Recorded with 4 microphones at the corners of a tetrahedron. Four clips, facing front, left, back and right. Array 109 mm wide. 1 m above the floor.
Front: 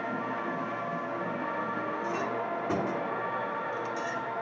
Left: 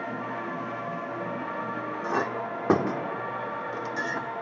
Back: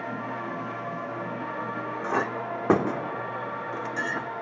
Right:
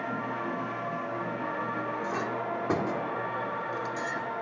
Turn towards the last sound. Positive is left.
turn(degrees=145)